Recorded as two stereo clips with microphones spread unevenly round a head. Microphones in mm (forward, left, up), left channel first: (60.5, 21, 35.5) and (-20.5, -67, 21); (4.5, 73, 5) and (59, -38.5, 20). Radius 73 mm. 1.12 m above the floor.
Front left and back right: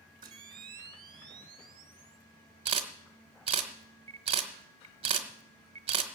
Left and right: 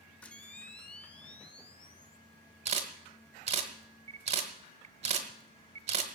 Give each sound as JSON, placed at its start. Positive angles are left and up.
{"t": 0.2, "sound": "a camera shutter", "azimuth_deg": -160, "distance_m": 1.0}
{"t": 2.6, "sound": "a camera shutter", "azimuth_deg": -90, "distance_m": 1.3}